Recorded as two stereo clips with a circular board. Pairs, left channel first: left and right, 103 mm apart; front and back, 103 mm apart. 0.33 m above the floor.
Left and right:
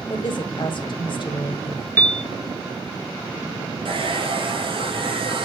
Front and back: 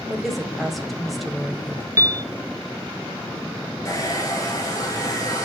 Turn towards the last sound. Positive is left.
turn(degrees=-55)